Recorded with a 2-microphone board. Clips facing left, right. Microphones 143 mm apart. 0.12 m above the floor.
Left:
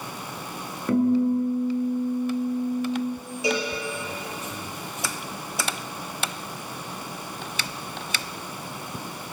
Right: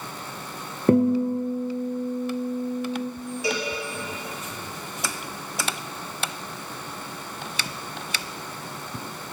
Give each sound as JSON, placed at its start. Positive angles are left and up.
{"t": 0.9, "sound": "a guitar", "side_deg": -45, "distance_m": 0.9}
{"t": 3.4, "sound": "a cowbell", "side_deg": 20, "distance_m": 1.9}